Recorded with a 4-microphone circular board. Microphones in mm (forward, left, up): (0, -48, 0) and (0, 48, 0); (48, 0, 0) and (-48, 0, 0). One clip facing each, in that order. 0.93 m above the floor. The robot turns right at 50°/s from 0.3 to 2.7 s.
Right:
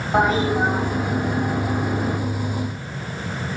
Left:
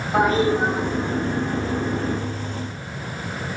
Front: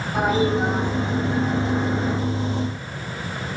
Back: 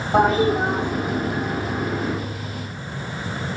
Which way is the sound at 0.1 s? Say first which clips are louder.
Even, back 3 dB; 165° right.